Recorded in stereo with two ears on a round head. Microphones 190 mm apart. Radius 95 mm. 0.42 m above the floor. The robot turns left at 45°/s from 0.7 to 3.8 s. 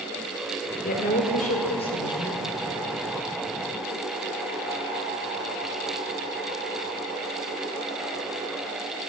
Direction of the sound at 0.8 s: 90° left.